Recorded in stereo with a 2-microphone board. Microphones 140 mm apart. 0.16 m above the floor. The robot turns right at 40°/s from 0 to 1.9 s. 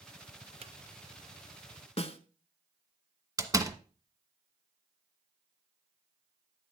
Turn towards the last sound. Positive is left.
turn(degrees=-20)  # may be behind; listen again after turning